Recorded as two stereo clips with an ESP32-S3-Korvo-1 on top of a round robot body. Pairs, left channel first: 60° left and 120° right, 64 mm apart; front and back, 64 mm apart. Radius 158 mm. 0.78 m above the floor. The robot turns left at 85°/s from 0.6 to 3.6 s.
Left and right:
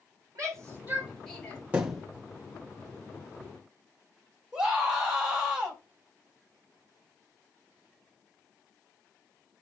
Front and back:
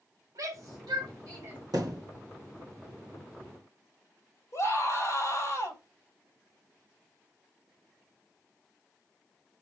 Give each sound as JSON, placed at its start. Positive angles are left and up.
{"t": 0.3, "sound": "a shout", "azimuth_deg": -160, "distance_m": 7.5}
{"t": 1.7, "sound": "a thud", "azimuth_deg": 170, "distance_m": 3.0}
{"t": 4.5, "sound": "a scream", "azimuth_deg": -40, "distance_m": 4.5}